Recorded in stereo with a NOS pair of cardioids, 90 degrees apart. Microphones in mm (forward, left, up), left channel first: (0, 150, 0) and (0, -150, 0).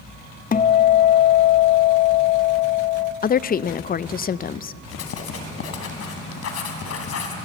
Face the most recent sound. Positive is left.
turn(degrees=55)